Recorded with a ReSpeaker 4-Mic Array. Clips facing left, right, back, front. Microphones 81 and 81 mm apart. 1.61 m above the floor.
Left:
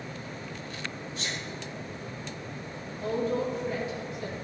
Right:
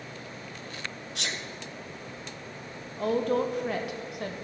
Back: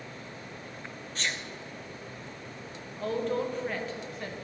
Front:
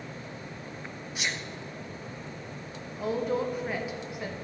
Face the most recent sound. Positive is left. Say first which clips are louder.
# right 3 dB, front 1 dB
turn(degrees=-80)